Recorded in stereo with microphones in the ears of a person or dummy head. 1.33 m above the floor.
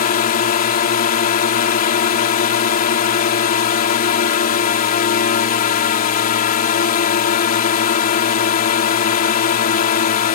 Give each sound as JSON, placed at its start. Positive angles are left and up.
{"t": 0.0, "sound": "a drone", "side_deg": 50}